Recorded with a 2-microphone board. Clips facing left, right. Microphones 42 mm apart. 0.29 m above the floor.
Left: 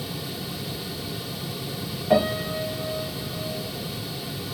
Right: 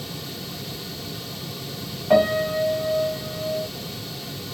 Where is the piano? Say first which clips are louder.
Right 4 dB; 15° right (ahead or behind), 0.9 m.